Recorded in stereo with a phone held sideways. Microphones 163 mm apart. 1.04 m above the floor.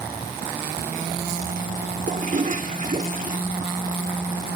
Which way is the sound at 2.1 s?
55° right (ahead or behind).